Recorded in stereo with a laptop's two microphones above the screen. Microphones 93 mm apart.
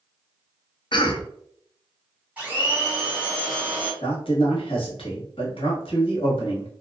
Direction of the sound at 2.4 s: 15° right (ahead or behind).